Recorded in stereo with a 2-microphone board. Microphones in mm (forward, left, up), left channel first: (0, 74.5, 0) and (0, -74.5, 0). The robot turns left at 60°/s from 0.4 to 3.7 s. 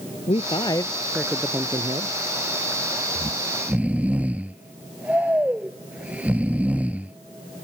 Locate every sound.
0.3 s a man speaking: 50° left; by 2.1 s 55° right
3.1 s snoring: 135° right; by 7.2 s 170° right